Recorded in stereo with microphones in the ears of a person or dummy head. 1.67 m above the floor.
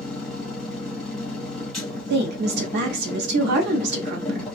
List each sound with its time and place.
0.0 s a machine running: 5° left (ahead or behind), 1.1 m
2.1 s a woman speaking: 60° right (ahead or behind), 0.6 m